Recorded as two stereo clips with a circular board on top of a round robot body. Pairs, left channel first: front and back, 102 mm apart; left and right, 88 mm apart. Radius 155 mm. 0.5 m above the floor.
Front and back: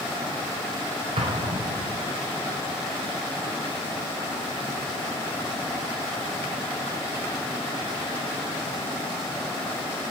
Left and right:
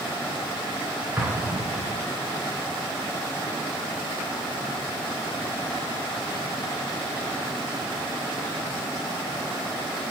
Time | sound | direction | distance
1.2 | an explosion | 160° right | 4 m